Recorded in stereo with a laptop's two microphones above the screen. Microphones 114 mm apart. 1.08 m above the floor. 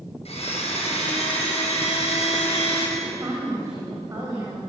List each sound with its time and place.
0.2 s a blender: 65° left (ahead or behind), 6 m
3.0 s a woman speaking: 30° right (ahead or behind), 6.5 m